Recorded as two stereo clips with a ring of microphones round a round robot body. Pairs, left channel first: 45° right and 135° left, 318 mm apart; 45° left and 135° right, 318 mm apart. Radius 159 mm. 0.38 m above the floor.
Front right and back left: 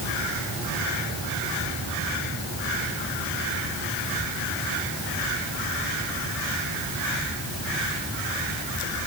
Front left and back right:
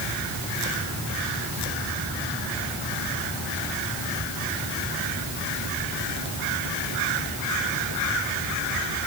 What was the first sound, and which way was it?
Only background noise.